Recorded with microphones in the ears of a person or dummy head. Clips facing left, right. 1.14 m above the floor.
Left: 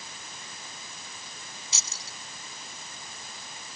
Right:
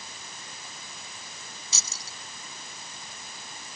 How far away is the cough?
No cough in this recording.